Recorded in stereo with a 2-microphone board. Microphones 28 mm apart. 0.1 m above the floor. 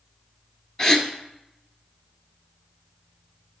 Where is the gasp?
20° left (ahead or behind), 1.0 m.